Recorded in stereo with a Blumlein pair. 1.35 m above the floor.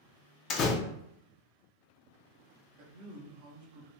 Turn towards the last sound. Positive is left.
turn(degrees=-50)